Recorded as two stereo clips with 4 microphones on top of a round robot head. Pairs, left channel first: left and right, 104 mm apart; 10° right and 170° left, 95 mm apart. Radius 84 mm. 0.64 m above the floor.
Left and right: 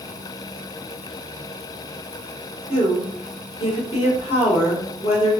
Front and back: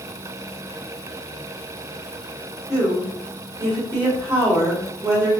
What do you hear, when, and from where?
2.7 s a woman speaking: 110° left, 2.5 m